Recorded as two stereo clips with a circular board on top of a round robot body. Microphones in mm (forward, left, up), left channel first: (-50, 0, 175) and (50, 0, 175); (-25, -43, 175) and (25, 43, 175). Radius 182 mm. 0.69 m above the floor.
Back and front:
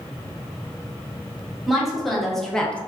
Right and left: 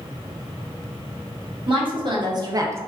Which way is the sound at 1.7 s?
90° left.